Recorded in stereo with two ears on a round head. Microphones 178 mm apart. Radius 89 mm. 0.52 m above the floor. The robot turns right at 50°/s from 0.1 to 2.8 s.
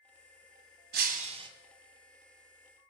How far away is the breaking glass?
About 1.5 m.